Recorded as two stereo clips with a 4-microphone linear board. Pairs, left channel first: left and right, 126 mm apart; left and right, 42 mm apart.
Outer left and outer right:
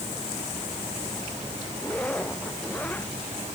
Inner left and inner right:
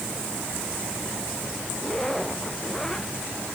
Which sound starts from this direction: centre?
A zipper, at 1.8 s.